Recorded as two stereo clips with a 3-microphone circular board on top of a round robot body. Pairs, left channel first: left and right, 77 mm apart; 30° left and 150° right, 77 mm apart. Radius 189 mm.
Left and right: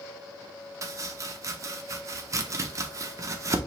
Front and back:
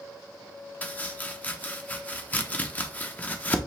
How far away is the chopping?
About 0.6 m.